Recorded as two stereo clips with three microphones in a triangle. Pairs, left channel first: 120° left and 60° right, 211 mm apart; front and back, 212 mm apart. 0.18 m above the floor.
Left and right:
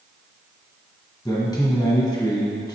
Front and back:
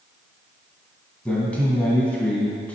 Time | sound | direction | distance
1.2 | a man speaking | 75° left | 1.5 m